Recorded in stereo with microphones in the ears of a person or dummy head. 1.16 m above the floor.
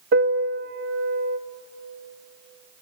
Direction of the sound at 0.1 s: 55° right (ahead or behind).